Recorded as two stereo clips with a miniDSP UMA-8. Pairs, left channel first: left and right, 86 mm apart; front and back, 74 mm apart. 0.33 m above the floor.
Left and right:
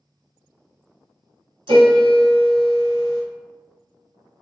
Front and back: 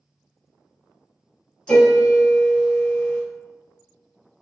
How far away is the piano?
About 1.5 m.